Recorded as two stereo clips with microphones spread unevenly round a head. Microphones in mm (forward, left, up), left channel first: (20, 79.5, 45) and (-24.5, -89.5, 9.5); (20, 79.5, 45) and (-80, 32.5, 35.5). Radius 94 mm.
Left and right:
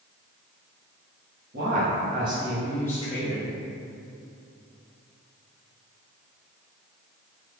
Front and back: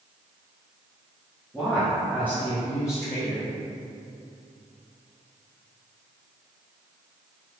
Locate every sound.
1.5 s a woman speaking: 65° right, 1.1 m; by 3.5 s 75° left, 0.9 m